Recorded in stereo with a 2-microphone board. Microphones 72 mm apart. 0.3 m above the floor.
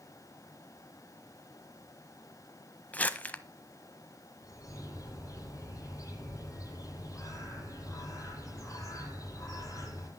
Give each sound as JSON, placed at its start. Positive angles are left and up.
{"t": 2.9, "sound": "crumpling", "side_deg": 20, "distance_m": 1.1}
{"t": 4.4, "sound": "a bird", "side_deg": 50, "distance_m": 9.5}